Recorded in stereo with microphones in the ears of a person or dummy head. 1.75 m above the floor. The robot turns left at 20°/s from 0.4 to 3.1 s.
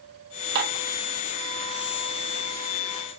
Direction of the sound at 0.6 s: 55° right (ahead or behind).